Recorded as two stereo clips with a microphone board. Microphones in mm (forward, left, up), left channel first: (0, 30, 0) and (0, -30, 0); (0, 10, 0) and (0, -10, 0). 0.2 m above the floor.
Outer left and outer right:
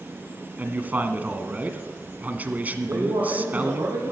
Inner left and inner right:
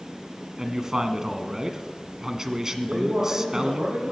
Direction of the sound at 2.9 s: 65° right (ahead or behind).